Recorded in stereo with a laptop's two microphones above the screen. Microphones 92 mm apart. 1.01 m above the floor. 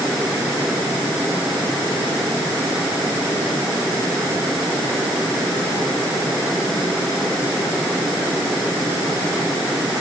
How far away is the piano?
I don't hear a piano.